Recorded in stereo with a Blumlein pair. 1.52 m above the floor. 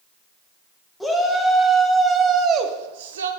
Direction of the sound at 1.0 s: 5° left.